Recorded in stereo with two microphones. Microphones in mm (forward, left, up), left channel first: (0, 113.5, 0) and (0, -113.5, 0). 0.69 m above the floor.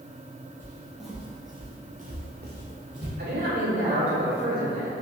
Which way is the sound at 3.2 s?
65° right (ahead or behind).